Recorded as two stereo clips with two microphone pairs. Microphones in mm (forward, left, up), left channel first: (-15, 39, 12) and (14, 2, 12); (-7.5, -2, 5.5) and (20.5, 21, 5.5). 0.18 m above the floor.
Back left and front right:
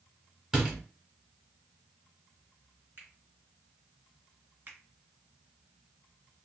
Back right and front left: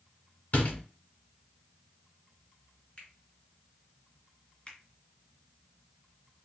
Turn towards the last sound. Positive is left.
turn(degrees=-85)